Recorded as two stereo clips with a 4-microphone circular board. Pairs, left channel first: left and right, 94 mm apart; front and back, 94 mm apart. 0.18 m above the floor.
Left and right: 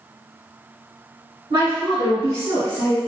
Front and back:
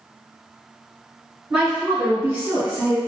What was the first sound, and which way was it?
A woman speaking, 100° right.